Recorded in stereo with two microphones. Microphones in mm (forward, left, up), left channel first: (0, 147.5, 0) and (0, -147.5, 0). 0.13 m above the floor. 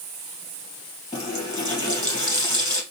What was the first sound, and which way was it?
A running tap, 15° left (ahead or behind).